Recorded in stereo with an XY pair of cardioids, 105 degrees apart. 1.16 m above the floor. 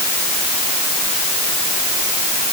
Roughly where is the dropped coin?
No dropped coin in this recording.